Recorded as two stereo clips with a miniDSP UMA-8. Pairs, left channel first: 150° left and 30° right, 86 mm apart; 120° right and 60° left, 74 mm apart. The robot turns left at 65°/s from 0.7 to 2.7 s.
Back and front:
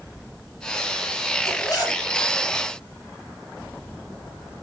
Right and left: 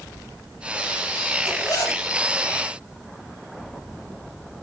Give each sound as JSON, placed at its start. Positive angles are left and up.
{"t": 1.4, "sound": "a zipper", "azimuth_deg": -140, "distance_m": 4.0}